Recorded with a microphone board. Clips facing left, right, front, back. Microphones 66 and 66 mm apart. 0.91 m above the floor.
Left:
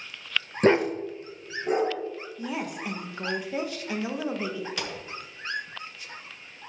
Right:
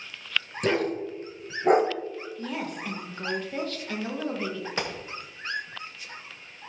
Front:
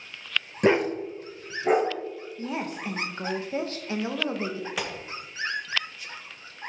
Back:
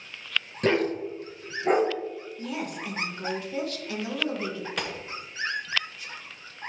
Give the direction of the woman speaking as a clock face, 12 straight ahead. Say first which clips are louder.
Left 2 dB, front 2 dB; 11 o'clock.